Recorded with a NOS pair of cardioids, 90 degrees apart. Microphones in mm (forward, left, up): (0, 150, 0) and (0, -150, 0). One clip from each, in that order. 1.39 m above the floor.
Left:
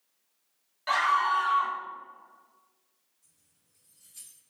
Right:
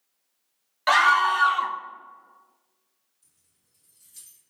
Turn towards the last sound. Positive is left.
turn(degrees=-45)